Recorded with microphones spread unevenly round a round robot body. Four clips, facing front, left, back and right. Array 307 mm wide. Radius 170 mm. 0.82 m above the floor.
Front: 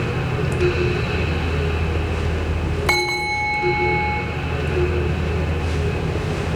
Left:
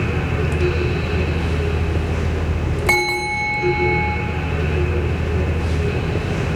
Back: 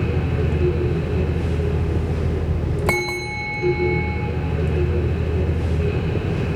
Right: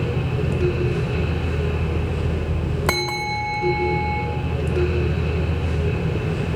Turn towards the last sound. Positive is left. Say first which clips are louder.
# left 5 dB, front 4 dB
turn(degrees=-155)